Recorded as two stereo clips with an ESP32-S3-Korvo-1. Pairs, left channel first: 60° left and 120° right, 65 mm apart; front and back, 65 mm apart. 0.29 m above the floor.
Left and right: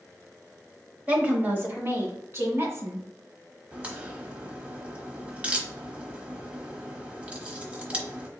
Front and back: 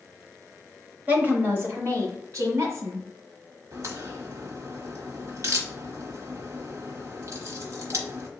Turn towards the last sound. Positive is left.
turn(degrees=175)